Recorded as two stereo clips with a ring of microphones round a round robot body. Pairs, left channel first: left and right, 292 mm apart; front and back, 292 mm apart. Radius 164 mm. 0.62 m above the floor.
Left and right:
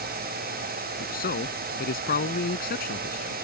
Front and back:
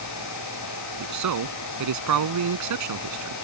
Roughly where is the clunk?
I don't hear a clunk.